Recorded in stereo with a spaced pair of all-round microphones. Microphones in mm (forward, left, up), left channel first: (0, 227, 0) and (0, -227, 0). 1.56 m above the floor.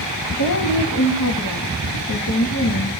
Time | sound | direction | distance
0.3 | a woman speaking | 50° left (ahead or behind) | 1.9 m